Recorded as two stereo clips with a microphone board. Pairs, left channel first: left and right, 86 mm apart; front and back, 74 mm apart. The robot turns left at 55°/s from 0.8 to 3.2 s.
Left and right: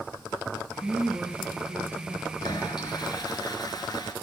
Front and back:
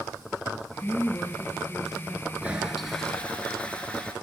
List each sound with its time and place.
0.8 s a woman speaking: 20° right, 1.8 m; by 2.3 s 105° right, 1.8 m
2.4 s a toilet flushing: 115° left, 2.5 m; by 4.1 s 70° left, 2.5 m